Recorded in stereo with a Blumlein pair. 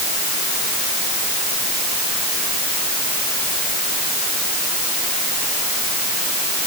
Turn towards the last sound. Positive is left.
No sound to turn to.